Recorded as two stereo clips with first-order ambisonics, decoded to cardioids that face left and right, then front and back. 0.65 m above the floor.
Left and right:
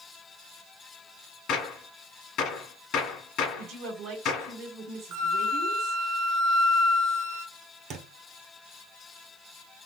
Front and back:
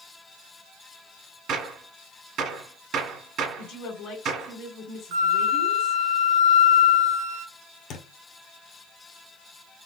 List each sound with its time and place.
1.5 s a gunshot: 135° left, 1.1 m
3.6 s a woman speaking: 40° right, 1.5 m
5.1 s a flute: 140° right, 0.8 m
7.9 s a thud: 40° right, 1.1 m